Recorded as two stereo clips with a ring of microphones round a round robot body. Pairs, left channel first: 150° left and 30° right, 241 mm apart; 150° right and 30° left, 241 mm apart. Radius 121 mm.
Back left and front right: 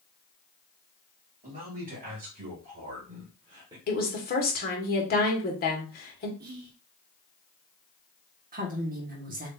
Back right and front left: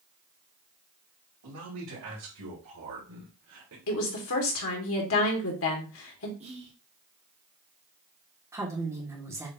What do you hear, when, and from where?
1.4 s a man speaking: 25° left, 3 m; by 3.8 s 40° left, 1.6 m
3.9 s a woman speaking: 165° right, 1.7 m
6.4 s whispering: 20° right, 0.8 m
8.5 s a woman speaking: 40° right, 1.4 m